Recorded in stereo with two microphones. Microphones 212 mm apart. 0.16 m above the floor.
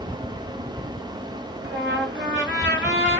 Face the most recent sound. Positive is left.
turn(degrees=-60)  # may be behind; listen again after turning